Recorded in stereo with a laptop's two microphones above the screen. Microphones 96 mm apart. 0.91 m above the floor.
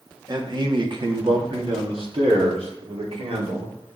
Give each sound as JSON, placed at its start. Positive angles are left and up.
{"t": 0.3, "sound": "a man speaking", "side_deg": -45, "distance_m": 1.8}